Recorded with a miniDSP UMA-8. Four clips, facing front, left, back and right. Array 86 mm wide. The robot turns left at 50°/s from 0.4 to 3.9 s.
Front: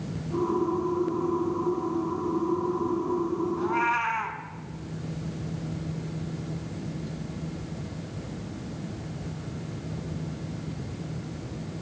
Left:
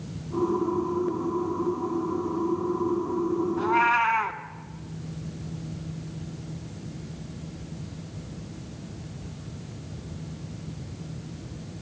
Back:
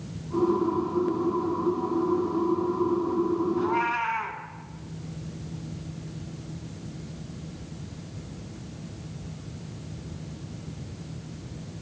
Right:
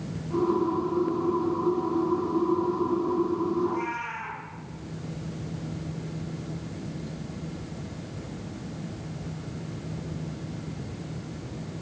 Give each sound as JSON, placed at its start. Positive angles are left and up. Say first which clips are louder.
{"t": 3.6, "sound": "a cat meowing", "louder": "left 6 dB, even", "azimuth_deg": 95, "distance_m": 1.0}